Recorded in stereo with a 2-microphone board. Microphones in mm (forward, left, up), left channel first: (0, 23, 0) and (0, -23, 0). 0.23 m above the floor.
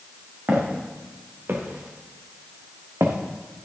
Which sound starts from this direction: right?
Footsteps, at 0.5 s.